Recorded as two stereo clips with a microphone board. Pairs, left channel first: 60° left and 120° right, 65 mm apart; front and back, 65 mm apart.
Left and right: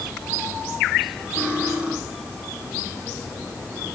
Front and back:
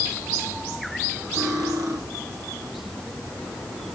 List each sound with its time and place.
1.4 s cutlery clinking: 170° left, 5 m